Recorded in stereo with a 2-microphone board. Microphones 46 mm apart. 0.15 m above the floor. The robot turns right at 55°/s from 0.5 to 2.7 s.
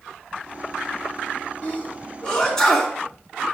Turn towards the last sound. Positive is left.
turn(degrees=10)  # may be behind; listen again after turning